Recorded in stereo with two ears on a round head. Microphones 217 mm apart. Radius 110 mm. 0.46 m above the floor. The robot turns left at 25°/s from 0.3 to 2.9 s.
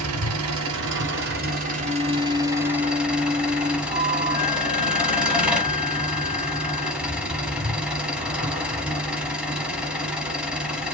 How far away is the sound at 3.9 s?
About 1.2 m.